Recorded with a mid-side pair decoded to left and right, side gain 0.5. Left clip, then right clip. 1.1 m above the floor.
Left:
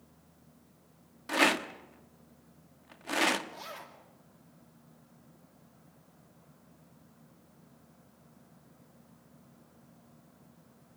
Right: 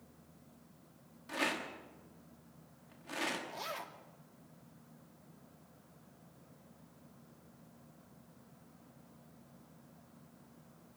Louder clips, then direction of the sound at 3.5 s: Right 2 dB; 20° right.